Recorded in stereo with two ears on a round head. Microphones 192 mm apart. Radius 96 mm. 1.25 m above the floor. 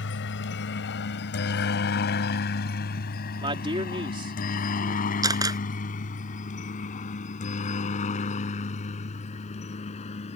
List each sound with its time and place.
0.0 s a helicopter: 60° left (ahead or behind); by 10.4 s 30° left (ahead or behind)
3.4 s a man speaking: 25° right (ahead or behind)
5.2 s a camera shutter: 15° right (ahead or behind)